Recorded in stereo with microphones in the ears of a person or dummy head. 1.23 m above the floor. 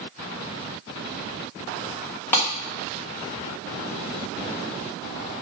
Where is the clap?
5° left (ahead or behind), 2 m.